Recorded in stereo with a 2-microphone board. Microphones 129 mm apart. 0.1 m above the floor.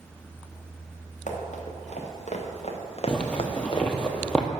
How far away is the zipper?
About 0.8 m.